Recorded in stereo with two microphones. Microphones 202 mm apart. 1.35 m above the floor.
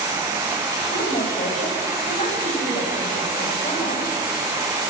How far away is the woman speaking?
About 10 m.